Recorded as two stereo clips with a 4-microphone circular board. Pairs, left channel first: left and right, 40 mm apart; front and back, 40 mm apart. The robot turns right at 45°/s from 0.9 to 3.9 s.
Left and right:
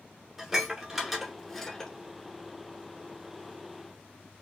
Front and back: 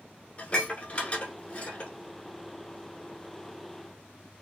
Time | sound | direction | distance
0.4 | dishes clattering | 15° right | 1.2 m